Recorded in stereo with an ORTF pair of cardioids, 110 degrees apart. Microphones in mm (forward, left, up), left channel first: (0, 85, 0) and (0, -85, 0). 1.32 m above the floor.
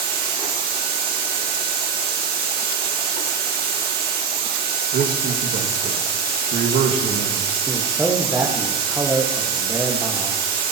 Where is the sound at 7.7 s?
15° right, 1.5 m.